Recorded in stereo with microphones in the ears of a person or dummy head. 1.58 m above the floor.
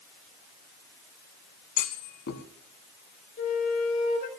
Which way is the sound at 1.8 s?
60° left (ahead or behind).